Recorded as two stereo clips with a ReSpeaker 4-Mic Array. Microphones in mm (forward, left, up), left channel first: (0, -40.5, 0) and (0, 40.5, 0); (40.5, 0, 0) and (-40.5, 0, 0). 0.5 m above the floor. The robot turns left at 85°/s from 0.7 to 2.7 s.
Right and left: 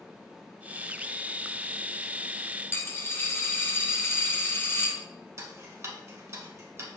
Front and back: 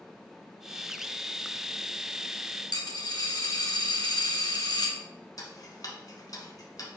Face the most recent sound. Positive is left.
turn(degrees=40)